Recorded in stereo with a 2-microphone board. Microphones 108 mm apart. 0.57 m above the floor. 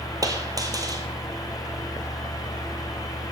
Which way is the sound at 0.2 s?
35° right (ahead or behind).